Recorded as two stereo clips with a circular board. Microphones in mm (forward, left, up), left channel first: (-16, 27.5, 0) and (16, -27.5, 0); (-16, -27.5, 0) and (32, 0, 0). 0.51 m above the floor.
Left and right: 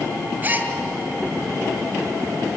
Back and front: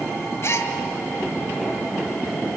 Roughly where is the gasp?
Behind right.